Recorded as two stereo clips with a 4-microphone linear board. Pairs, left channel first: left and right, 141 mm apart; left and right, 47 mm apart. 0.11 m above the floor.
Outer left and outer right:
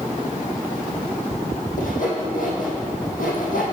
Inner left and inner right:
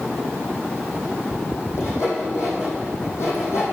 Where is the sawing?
70° left (ahead or behind), 2.5 m.